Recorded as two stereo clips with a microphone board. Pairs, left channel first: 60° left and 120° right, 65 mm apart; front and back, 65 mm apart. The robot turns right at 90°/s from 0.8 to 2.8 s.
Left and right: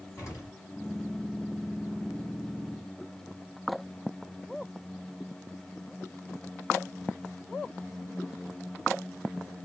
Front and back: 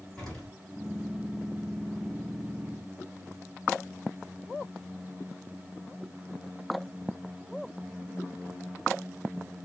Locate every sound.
0.2 s an explosion: 80° left, 2 m